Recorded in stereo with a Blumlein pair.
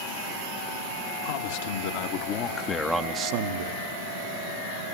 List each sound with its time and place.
1.2 s a man speaking: 60° left, 2.5 m; by 3.9 s 75° right, 1.3 m